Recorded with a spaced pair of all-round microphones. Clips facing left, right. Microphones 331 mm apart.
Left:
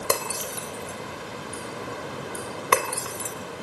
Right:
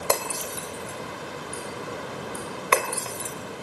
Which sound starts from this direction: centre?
Breaking glass, at 0.1 s.